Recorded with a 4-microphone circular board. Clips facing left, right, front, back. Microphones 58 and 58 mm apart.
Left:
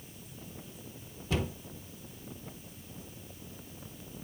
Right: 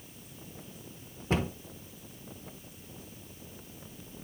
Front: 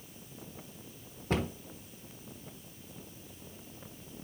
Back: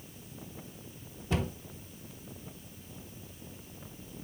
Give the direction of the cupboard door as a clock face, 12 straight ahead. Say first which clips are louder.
Right 3 dB, front 1 dB; 1 o'clock.